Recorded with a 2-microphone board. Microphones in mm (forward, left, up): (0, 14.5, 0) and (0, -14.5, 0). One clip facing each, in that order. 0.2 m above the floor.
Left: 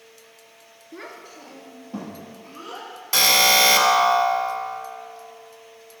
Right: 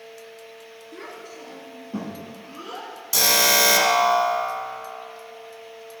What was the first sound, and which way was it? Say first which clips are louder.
A child speaking: even; 15° left (ahead or behind).